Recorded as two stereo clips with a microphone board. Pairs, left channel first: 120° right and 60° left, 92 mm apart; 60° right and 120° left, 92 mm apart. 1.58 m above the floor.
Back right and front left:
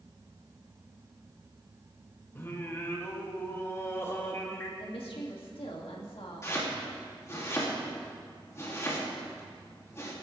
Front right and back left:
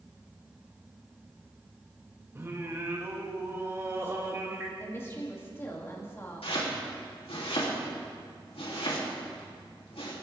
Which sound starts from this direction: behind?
Singing, at 2.4 s.